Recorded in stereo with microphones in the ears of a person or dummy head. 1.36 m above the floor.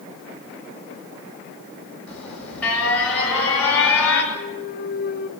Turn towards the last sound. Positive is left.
turn(degrees=50)  # may be behind; listen again after turning